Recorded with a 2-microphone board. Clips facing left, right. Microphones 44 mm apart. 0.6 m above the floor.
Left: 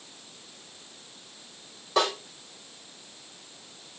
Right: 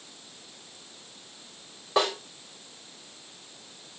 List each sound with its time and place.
2.0 s a snare drum: 15° right (ahead or behind), 5 m